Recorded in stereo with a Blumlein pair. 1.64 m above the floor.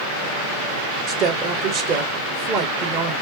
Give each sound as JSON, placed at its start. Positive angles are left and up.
{"t": 1.1, "sound": "a woman speaking", "azimuth_deg": -30, "distance_m": 1.6}